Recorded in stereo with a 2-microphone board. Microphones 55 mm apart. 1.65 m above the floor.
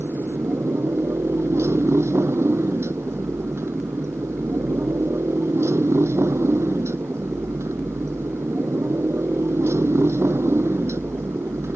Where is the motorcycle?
55° right (ahead or behind).